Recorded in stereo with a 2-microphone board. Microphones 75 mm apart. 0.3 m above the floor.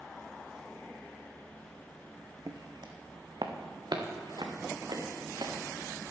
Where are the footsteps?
55° right (ahead or behind), 1.0 m; by 5.5 s 70° right (ahead or behind), 3.5 m.